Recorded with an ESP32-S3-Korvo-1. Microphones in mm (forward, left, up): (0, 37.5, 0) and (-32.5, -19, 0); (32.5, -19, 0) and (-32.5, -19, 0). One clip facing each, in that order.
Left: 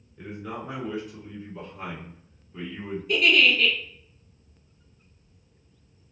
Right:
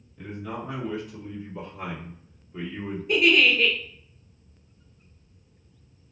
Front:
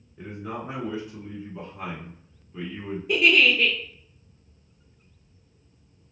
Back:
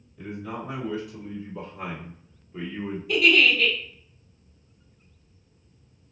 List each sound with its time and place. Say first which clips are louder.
0.2 s a man speaking: right 1 dB, even; 10° right, 1.8 m; by 3.0 s 155° right, 1.5 m
3.1 s a giggle: right 1 dB, even; 55° right, 1.1 m